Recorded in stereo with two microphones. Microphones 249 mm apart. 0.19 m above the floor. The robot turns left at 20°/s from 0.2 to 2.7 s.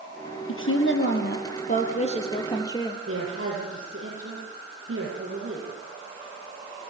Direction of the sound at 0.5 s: 60° left.